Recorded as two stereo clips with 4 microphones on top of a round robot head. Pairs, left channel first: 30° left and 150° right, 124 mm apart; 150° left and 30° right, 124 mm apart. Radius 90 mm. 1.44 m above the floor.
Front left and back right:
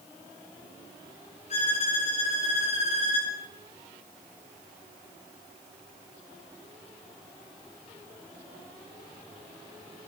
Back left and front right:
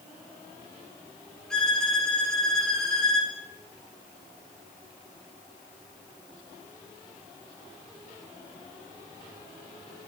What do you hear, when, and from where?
1.5 s a violin: 65° left, 3 m